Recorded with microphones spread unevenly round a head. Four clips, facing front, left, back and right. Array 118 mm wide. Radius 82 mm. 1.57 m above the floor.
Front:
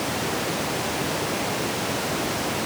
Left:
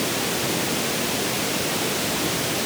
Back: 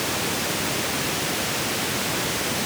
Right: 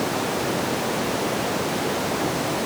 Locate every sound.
Only background noise.